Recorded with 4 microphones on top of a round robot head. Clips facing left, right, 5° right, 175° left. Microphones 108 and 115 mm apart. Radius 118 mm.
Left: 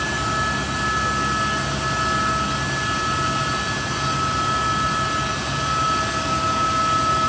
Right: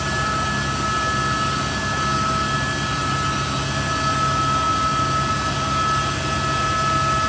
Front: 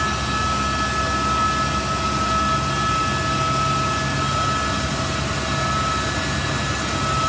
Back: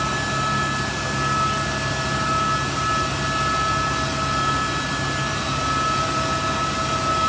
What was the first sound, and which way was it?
Only background noise.